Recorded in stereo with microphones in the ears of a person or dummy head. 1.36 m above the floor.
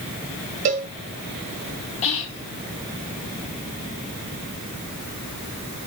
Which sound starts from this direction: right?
A cowbell, at 0.7 s.